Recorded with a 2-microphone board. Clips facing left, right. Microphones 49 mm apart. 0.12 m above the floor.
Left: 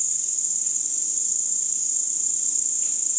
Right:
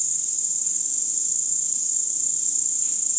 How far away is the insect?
About 0.9 m.